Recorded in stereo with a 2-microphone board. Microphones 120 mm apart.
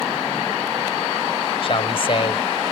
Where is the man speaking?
45° left (ahead or behind).